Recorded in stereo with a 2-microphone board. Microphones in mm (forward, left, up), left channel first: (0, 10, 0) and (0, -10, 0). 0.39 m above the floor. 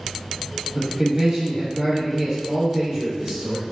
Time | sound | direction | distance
0.8 | a man speaking | 20° right (ahead or behind) | 1.3 m